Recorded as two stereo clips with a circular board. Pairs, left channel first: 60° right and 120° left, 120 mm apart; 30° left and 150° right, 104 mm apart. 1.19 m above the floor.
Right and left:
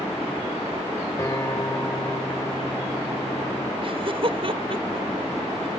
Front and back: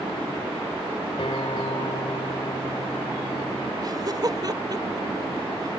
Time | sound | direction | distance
1.2 | a guitar | 5° left | ?
3.8 | laughter | 160° left | ?